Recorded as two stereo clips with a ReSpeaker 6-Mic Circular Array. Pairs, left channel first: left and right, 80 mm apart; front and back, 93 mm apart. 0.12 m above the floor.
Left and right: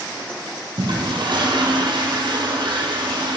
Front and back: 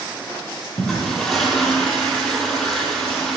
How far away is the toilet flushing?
About 1.5 m.